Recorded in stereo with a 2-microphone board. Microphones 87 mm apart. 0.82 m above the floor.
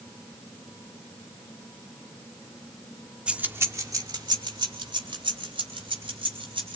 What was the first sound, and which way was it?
Keys jangling, 10° right (ahead or behind).